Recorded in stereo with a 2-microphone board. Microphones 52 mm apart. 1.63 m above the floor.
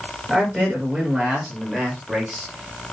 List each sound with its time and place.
0.3 s a man speaking: 10° right (ahead or behind), 6.5 m; by 2.8 s 5° right (ahead or behind), 7.5 m